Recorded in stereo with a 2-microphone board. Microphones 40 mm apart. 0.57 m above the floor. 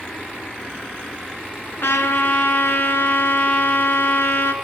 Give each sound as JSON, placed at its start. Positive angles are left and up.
{"t": 1.8, "sound": "a trumpet", "side_deg": 75, "distance_m": 4.0}